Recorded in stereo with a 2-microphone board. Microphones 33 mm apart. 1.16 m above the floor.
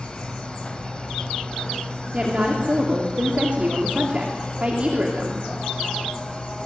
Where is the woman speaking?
35° right (ahead or behind), 3 m.